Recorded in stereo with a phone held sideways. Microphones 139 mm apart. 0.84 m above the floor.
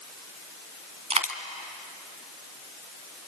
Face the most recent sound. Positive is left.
turn(degrees=-50)  # may be behind; listen again after turning